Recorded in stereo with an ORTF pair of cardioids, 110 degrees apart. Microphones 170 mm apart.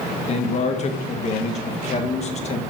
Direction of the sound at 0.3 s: 40° left.